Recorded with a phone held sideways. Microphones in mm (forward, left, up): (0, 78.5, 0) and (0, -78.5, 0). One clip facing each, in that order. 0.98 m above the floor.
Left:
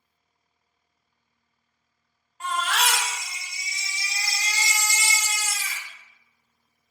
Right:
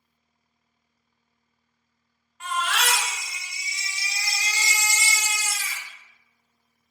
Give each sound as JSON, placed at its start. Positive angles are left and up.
{"t": 2.4, "sound": "a baby crying", "side_deg": 35, "distance_m": 0.7}